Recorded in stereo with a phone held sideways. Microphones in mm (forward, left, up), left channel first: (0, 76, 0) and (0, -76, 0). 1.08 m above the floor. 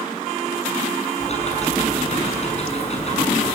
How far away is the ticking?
About 5.5 m.